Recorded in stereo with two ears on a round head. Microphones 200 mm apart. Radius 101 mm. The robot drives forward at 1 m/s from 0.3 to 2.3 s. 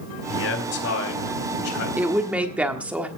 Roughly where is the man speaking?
Left.